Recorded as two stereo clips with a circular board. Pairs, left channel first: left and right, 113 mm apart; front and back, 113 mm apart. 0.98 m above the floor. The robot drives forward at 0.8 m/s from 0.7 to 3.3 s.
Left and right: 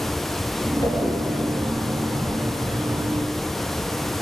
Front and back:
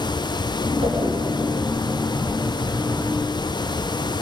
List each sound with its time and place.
0.8 s a whoosh: 140° left, 5.5 m; by 1.2 s 145° left, 5.5 m